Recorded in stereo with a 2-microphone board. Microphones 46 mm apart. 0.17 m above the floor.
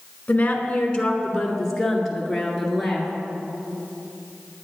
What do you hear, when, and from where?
0.3 s a woman speaking: 30° left (ahead or behind), 1.6 m; by 3.1 s centre (ahead or behind), 2.5 m